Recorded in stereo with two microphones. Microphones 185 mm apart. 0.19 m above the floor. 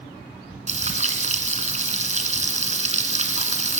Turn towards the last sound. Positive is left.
turn(degrees=-40)  # may be behind; listen again after turning